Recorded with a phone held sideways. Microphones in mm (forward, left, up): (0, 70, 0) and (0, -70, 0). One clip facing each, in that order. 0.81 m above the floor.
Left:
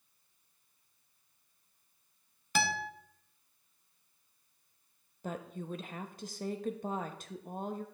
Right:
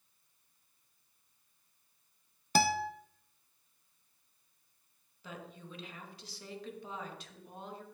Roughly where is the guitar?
Right.